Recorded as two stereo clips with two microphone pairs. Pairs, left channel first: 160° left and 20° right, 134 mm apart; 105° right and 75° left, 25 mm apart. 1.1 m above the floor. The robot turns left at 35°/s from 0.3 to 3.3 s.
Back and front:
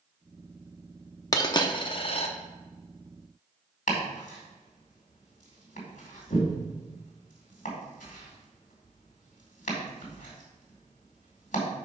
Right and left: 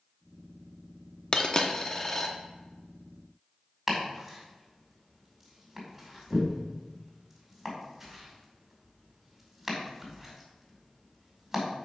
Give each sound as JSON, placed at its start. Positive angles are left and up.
{"t": 1.3, "sound": "a dropped coin", "azimuth_deg": -145, "distance_m": 0.7}
{"t": 3.9, "sound": "chopping", "azimuth_deg": 160, "distance_m": 2.5}